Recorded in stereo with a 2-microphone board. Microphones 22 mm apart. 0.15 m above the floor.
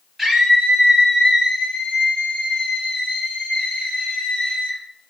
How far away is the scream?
About 3 m.